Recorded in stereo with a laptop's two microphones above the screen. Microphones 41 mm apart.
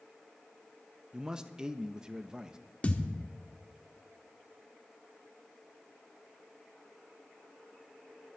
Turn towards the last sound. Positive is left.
turn(degrees=35)  # may be behind; listen again after turning